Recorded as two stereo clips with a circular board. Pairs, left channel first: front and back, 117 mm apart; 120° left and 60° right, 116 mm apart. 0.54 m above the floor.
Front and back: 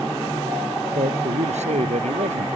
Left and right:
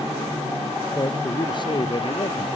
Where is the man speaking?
170° left; by 2.6 s 165° left.